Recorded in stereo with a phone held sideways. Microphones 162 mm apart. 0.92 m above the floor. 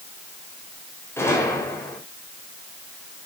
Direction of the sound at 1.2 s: 15° left (ahead or behind).